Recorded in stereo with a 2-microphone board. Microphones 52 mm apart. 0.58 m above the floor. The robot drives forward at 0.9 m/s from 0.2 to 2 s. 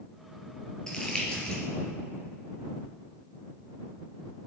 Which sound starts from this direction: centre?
Crumpling, at 0.9 s.